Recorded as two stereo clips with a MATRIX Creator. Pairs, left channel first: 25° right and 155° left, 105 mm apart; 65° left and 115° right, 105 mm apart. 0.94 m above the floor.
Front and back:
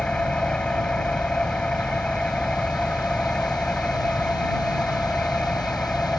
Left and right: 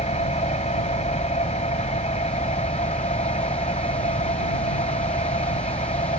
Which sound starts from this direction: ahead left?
An engine running, at 0.0 s.